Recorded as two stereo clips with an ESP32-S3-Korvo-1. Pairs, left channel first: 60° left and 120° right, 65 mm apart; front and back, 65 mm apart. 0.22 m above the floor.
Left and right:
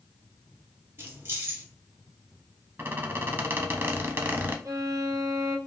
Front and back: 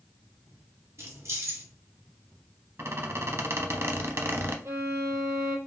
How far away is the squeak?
About 0.6 m.